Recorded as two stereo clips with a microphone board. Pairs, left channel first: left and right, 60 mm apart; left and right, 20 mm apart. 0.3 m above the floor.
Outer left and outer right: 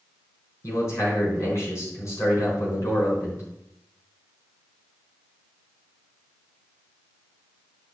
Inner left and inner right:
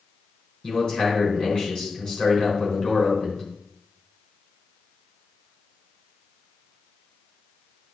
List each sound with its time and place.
0.6 s a man speaking: 50° left (ahead or behind), 4 m